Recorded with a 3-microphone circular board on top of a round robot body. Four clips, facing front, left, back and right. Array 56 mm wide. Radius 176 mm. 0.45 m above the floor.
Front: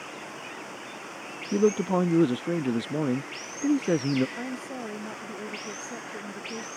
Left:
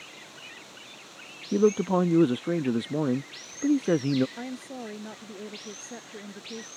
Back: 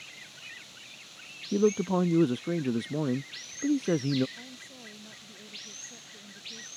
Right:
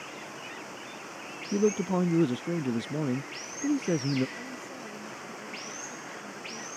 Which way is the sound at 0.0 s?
25° right.